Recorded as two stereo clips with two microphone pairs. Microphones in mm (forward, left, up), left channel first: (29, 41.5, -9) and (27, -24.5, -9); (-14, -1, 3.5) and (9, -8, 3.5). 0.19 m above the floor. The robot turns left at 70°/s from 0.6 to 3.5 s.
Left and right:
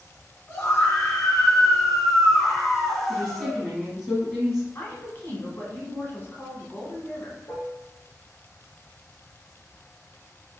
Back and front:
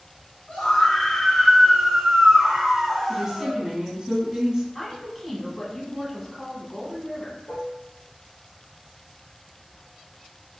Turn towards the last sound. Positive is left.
turn(degrees=125)